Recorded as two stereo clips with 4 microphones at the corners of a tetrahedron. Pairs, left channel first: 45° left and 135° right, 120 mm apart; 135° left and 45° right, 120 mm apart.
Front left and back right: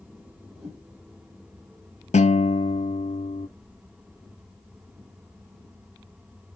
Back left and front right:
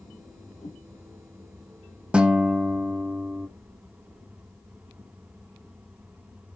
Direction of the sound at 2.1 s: 35° left.